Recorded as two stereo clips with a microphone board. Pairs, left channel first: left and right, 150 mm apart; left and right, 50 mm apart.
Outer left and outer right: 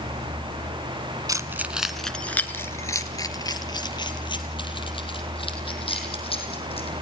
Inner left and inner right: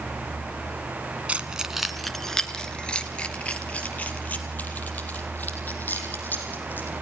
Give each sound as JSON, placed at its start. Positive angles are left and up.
{"t": 1.3, "sound": "keys jangling", "side_deg": -25, "distance_m": 1.2}